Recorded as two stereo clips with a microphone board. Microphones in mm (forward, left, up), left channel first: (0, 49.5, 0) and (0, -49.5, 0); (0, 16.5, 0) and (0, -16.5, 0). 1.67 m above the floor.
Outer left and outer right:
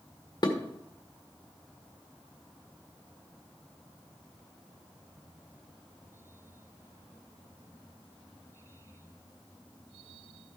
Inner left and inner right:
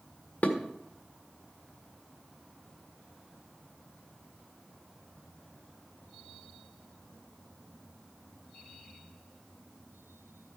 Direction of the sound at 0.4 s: 45° left (ahead or behind).